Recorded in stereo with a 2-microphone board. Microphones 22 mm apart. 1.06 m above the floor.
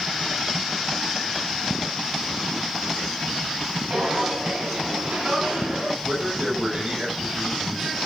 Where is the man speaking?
50° right (ahead or behind), 4.5 m.